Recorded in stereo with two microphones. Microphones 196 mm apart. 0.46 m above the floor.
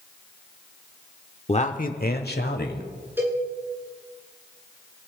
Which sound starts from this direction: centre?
A cowbell, at 3.2 s.